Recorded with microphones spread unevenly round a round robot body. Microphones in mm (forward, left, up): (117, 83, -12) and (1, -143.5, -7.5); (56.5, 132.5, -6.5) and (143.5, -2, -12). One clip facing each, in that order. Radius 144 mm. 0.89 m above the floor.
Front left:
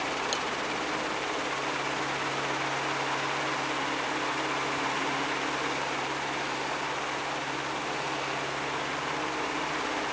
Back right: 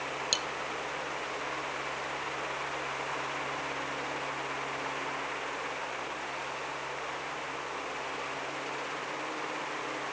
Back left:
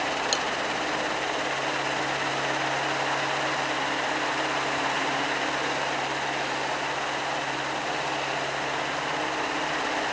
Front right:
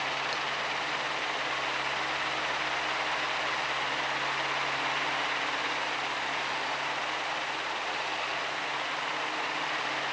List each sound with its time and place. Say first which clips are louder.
0.3 s cutlery clinking: front left 5 dB, back left 7 dB; 160° left